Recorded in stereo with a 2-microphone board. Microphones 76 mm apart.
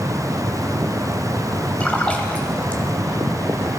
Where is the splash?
15° left (ahead or behind), 1.5 m.